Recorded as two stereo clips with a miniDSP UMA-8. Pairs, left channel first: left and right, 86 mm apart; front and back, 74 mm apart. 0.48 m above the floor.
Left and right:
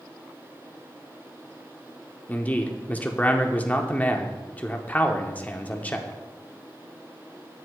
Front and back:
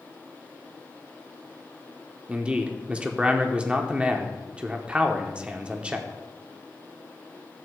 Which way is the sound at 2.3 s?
135° left.